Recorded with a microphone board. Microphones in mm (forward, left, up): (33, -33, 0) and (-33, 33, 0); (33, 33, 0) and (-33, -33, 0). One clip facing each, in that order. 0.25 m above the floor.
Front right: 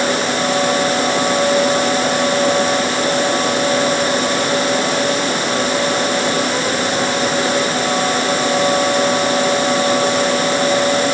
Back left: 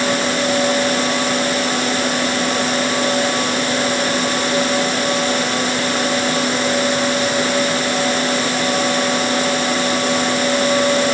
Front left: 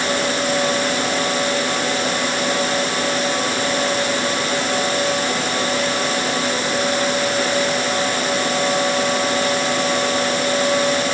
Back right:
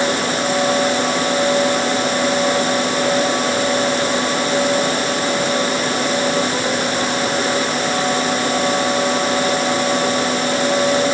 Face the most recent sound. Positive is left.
No sound to turn to.